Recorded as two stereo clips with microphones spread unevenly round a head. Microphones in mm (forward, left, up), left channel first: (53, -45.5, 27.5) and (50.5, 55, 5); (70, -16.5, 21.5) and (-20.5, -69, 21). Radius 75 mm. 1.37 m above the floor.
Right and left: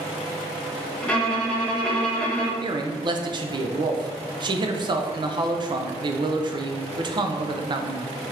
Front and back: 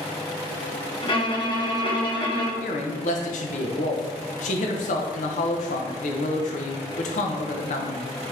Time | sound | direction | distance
1.0 | a violin | 10° right | 1.0 m
2.6 | a man speaking | 45° left | 0.6 m